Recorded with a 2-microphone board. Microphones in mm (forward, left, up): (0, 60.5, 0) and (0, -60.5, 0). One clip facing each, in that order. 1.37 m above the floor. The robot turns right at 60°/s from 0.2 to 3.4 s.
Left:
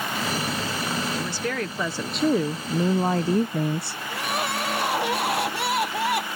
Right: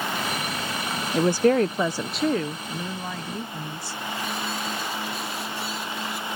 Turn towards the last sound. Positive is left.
turn(degrees=75)  # may be behind; listen again after turning